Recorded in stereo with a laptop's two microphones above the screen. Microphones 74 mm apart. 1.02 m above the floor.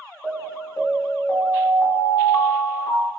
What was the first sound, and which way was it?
An alarm, 50° left (ahead or behind).